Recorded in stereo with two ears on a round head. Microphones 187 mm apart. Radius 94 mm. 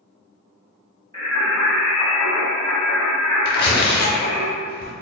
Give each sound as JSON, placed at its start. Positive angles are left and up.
{"t": 1.1, "sound": "singing", "side_deg": 15, "distance_m": 2.0}
{"t": 3.5, "sound": "tearing paper", "side_deg": 50, "distance_m": 0.8}